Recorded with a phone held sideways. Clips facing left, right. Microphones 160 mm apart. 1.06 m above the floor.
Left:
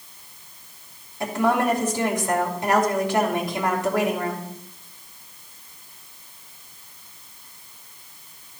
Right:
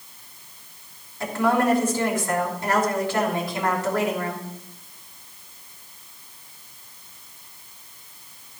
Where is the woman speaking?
20° left (ahead or behind), 3 m.